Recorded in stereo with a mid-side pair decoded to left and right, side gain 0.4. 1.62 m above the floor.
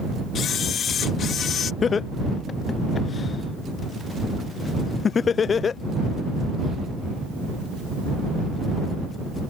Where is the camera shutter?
65° left.